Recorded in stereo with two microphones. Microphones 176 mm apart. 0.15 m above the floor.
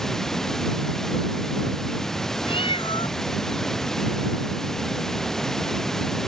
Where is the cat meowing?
30° left (ahead or behind).